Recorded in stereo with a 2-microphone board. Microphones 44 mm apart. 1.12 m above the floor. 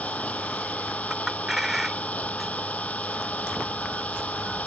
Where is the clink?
5° right (ahead or behind).